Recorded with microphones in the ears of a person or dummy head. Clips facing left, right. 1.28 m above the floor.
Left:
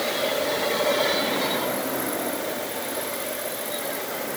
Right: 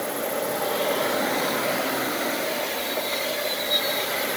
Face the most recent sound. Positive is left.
No sound to turn to.